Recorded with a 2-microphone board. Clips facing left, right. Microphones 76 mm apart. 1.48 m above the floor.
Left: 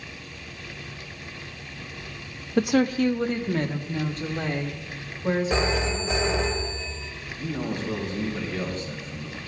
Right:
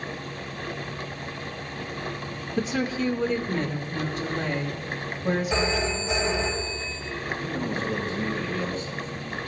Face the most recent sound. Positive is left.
turn(degrees=80)